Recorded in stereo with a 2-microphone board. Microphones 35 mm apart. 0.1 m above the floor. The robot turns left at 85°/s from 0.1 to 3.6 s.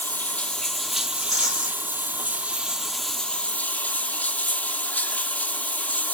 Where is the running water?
65° left, 0.9 m; by 6.2 s 125° left, 0.9 m.